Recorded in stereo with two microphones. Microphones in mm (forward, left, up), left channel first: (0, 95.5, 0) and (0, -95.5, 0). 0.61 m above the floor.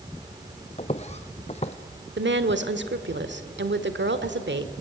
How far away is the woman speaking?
About 1.5 m.